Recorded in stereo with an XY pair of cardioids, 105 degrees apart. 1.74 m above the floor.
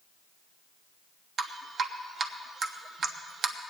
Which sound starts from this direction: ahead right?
Dripping, at 1.4 s.